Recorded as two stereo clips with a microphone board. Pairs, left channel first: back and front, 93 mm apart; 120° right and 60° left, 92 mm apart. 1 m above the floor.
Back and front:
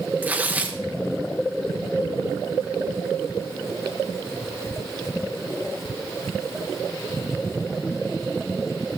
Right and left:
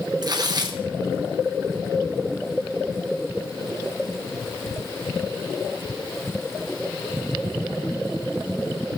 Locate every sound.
0.2 s tearing paper: 65° left, 1.1 m